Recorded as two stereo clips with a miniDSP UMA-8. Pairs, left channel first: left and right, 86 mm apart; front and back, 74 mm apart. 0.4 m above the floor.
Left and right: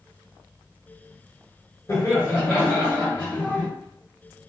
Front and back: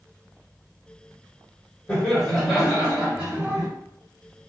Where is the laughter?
70° left, 1.7 m; by 3.7 s 145° left, 2 m.